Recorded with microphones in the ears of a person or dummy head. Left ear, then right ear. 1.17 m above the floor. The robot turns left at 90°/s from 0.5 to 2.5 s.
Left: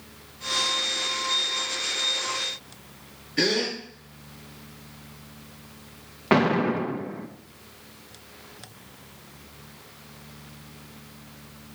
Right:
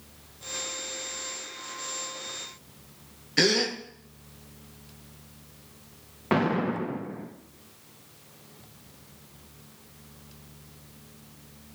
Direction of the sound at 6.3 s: 15° left (ahead or behind).